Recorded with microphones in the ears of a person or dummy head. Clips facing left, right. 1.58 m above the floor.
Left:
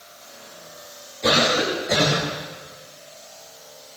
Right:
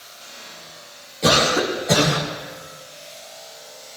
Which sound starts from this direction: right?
A cough, at 1.2 s.